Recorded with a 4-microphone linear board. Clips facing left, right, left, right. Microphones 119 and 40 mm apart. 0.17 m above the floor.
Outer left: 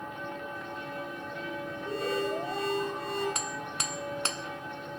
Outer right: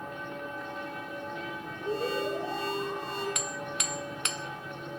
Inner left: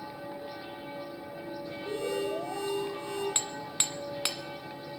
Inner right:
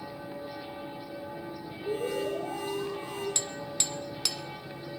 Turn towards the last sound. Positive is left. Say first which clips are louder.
# even, even
turn(degrees=35)  # may be behind; listen again after turning